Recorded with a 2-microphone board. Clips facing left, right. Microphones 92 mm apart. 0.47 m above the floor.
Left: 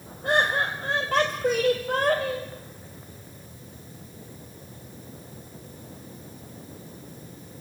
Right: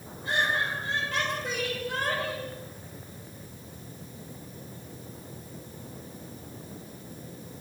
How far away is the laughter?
About 2.5 m.